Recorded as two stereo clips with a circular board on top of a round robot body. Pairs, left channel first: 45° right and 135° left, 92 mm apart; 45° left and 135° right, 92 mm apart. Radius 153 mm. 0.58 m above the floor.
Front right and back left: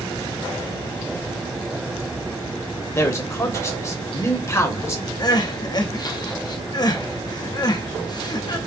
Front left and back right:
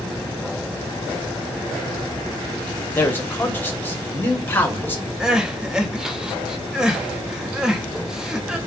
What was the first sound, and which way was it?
A man speaking, 10° right.